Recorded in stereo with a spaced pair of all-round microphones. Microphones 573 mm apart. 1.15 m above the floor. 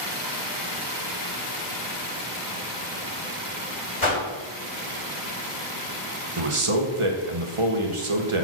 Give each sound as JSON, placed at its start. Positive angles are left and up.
{"t": 4.0, "sound": "a whoosh", "side_deg": 55, "distance_m": 2.0}
{"t": 6.4, "sound": "a man speaking", "side_deg": -60, "distance_m": 1.1}